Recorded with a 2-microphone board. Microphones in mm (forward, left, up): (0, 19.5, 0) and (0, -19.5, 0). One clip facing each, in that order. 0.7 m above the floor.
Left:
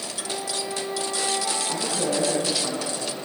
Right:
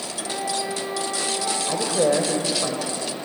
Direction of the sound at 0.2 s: 15° right (ahead or behind).